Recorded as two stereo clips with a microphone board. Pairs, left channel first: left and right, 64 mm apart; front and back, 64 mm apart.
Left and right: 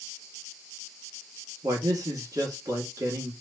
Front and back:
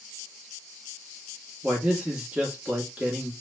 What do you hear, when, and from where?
1.6 s a man speaking: 110° right, 1.8 m